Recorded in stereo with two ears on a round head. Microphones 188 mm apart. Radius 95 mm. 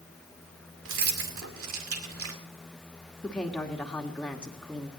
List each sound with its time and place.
0.8 s keys jangling: 70° right (ahead or behind), 2.5 m
3.2 s a woman speaking: 5° left (ahead or behind), 1.7 m